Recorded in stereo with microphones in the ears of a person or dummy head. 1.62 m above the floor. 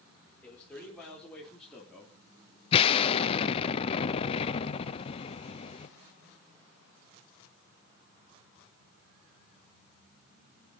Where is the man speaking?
10° left (ahead or behind), 4.5 m; by 2.2 s centre (ahead or behind), 3 m.